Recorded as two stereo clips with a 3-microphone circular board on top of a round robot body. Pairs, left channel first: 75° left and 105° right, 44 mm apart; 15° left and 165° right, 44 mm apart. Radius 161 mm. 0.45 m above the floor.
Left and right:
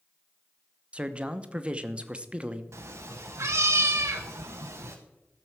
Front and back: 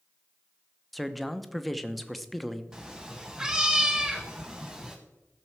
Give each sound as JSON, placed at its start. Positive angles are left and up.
{"t": 0.9, "sound": "a man speaking", "azimuth_deg": -70, "distance_m": 1.1}
{"t": 2.7, "sound": "a cat meowing", "azimuth_deg": -85, "distance_m": 0.7}